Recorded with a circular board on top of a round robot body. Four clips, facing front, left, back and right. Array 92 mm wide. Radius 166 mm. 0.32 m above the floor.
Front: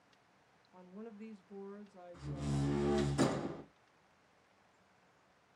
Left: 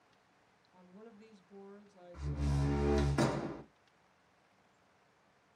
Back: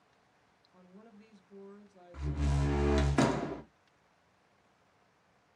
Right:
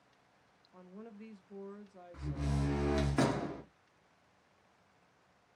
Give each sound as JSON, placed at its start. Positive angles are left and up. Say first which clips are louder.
{"t": 0.7, "sound": "a woman speaking", "louder": "right 5 dB, front 6 dB", "azimuth_deg": -55, "distance_m": 0.9}
{"t": 2.1, "sound": "a door slam", "louder": "right 1 dB, back 3 dB", "azimuth_deg": -170, "distance_m": 1.0}